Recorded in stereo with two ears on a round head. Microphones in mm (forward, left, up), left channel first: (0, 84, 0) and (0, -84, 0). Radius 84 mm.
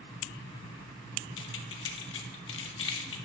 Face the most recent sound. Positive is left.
turn(degrees=70)  # may be behind; listen again after turning